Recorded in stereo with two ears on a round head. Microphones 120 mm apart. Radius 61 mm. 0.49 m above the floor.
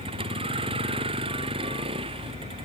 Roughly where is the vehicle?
Right.